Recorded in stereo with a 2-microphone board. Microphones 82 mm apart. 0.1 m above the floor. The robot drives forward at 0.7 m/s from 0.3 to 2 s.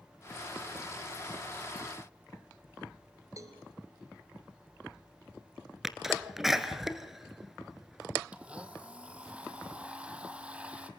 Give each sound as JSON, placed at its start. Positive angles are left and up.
{"t": 3.4, "sound": "a cowbell", "side_deg": -45, "distance_m": 2.0}
{"t": 5.8, "sound": "a sneeze", "side_deg": -5, "distance_m": 1.2}
{"t": 8.3, "sound": "a blender", "side_deg": -15, "distance_m": 1.3}